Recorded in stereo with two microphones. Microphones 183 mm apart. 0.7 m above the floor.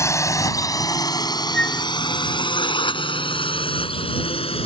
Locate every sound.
0.0 s a drone: 15° left (ahead or behind); by 4.7 s 30° left (ahead or behind)
1.5 s a flute: 70° right (ahead or behind)